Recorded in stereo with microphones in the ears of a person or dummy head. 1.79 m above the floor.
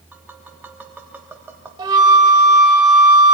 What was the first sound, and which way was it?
Tapping, 10° right (ahead or behind).